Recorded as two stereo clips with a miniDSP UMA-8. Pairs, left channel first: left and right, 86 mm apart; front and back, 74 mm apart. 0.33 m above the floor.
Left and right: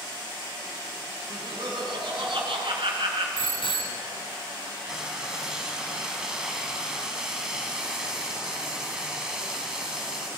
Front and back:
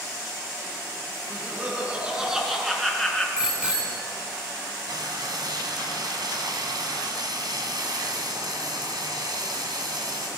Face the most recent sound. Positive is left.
turn(degrees=-170)